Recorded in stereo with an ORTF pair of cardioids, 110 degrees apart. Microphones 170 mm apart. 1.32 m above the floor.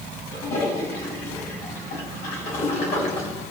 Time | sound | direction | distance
0.3 | a toilet flushing | 65° left | 4.5 m